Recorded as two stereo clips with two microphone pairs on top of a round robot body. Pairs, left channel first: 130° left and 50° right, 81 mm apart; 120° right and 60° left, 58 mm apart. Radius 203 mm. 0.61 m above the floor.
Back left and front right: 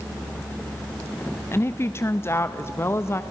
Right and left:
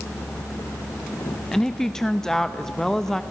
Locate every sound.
1.5 s a woman speaking: 160° left, 1.0 m